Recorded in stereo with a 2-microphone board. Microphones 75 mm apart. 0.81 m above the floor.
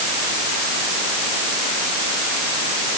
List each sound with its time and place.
Only background noise.